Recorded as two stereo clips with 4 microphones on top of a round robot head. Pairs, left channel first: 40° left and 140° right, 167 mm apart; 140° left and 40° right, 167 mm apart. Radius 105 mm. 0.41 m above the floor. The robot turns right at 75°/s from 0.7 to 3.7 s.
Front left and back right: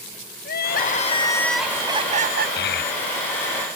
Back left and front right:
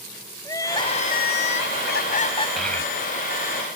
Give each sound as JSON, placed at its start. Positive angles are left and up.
{"t": 0.5, "sound": "crying", "azimuth_deg": 65}
{"t": 2.6, "sound": "a child speaking", "azimuth_deg": 45}